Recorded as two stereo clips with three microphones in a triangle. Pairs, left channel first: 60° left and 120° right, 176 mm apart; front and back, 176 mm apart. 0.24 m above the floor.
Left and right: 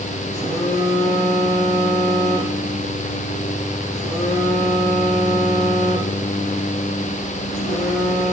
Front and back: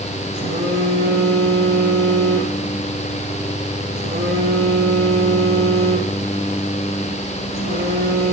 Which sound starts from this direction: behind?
A phone buzzing, at 0.3 s.